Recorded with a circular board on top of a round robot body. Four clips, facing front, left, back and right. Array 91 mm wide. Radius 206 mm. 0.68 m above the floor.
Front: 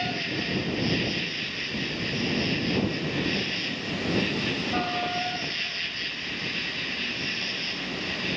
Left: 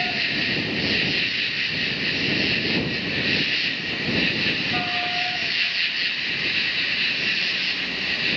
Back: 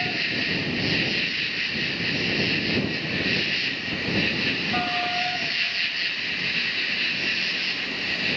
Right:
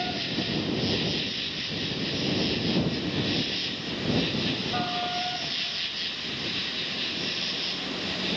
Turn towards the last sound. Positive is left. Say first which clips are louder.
# left 3 dB, back 1 dB
turn(degrees=120)